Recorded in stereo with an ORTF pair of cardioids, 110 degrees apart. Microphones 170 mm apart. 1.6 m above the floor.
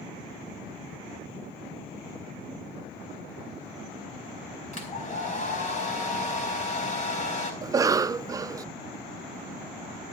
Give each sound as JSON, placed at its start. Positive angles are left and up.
{"t": 4.7, "sound": "a hair dryer", "azimuth_deg": 45, "distance_m": 4.5}
{"t": 7.6, "sound": "a cough", "azimuth_deg": -20, "distance_m": 0.5}